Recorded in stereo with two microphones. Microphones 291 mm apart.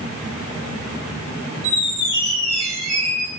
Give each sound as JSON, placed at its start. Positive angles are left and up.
{"t": 1.6, "sound": "a squeak", "side_deg": 50, "distance_m": 1.7}